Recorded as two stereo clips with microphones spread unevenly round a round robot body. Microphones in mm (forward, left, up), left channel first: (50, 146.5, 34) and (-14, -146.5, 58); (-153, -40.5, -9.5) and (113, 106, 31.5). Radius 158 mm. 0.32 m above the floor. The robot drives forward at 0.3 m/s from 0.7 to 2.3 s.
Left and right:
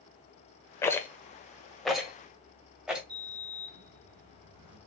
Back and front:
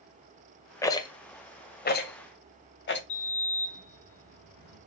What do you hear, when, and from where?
0.8 s a rattle: 145° left, 0.5 m; by 3.0 s 165° left, 0.8 m
3.1 s a sliding door: 130° right, 2.5 m